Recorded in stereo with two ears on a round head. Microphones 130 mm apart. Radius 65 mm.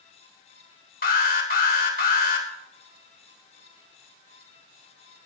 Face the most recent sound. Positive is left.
turn(degrees=70)  # may be behind; listen again after turning